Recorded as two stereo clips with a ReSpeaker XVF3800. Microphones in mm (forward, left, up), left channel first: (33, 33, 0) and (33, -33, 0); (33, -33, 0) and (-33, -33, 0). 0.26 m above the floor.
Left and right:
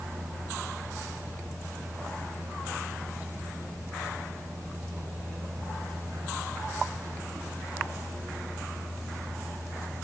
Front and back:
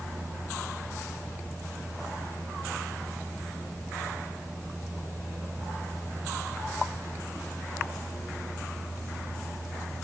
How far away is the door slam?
No door slam in this recording.